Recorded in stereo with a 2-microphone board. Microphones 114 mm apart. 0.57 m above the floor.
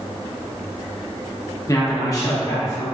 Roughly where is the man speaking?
Left.